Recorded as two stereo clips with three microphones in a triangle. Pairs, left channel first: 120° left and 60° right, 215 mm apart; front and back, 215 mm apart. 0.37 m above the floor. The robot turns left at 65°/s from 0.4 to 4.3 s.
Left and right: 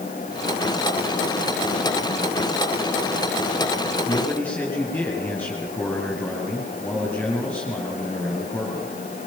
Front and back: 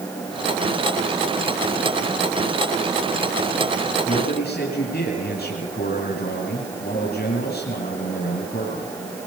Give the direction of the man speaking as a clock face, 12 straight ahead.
10 o'clock.